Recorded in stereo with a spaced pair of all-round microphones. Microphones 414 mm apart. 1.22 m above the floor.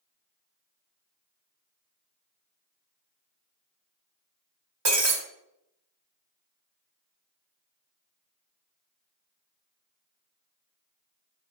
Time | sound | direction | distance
4.8 | breaking glass | 75° right (ahead or behind) | 1.8 m